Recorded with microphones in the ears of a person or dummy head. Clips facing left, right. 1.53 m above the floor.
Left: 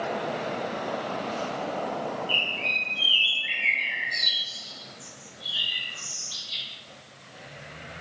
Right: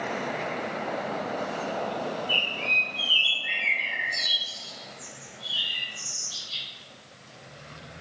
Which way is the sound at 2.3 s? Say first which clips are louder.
Right 1 dB; 25° left (ahead or behind).